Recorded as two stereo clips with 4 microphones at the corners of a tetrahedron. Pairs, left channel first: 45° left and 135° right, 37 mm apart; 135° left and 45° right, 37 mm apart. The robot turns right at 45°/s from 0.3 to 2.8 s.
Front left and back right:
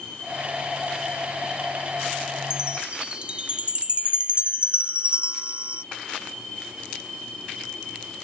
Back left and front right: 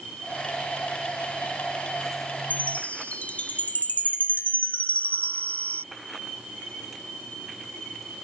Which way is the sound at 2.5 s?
160° left.